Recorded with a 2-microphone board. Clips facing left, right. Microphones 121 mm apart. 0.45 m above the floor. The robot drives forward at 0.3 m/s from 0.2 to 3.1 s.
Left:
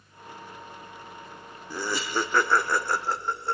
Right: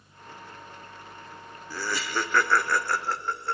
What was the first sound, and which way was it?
Laughter, 20° left (ahead or behind).